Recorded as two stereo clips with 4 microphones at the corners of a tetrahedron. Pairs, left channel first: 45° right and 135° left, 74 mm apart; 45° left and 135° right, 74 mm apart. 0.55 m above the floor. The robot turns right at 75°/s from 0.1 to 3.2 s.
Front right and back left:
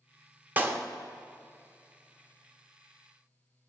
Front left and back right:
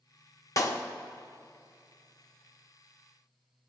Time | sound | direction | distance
0.6 | a clap | 75° left | 0.7 m